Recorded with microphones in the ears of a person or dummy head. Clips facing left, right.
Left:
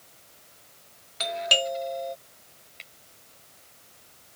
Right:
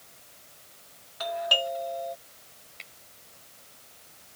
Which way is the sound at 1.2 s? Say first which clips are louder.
Left 1 dB; 35° left (ahead or behind).